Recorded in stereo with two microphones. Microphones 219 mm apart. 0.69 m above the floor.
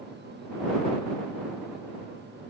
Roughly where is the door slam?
No door slam in this recording.